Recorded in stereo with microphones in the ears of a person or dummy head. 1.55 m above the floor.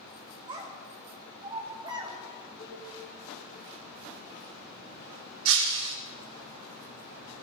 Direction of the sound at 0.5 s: 25° right (ahead or behind).